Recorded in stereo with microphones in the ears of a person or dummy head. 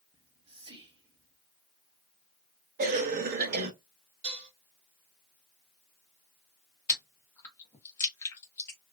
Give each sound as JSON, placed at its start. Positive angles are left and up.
{"t": 0.1, "sound": "whispering", "side_deg": -35, "distance_m": 0.7}
{"t": 2.8, "sound": "a cough", "side_deg": -50, "distance_m": 0.6}
{"t": 4.2, "sound": "dishes clattering", "side_deg": -30, "distance_m": 1.1}
{"t": 6.9, "sound": "chewing", "side_deg": 15, "distance_m": 0.8}